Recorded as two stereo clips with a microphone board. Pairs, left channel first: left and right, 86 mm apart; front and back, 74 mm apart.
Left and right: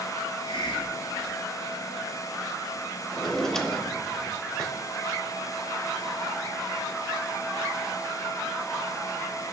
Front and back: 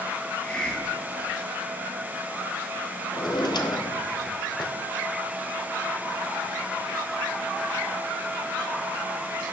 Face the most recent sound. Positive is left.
turn(degrees=5)